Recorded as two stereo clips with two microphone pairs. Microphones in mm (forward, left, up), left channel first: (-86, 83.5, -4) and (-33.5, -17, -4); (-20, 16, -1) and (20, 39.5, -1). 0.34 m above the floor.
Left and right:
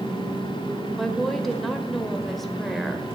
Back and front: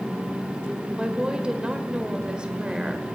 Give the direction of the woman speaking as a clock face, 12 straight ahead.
11 o'clock.